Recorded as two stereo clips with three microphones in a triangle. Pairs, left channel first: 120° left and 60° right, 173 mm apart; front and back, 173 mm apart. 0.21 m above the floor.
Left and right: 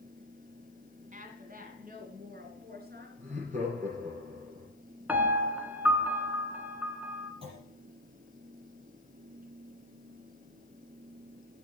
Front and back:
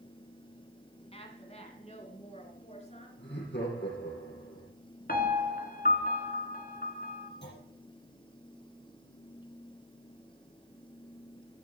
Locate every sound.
1.1 s a woman speaking: 45° right, 2 m; by 3.1 s 50° right, 3.5 m
3.2 s laughter: 15° right, 6 m
5.1 s a piano: 20° left, 1.4 m
7.4 s a clunk: straight ahead, 5.5 m